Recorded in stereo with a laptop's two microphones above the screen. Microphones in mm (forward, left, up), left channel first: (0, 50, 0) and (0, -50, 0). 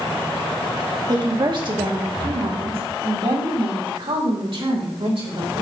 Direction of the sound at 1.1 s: 45° right (ahead or behind).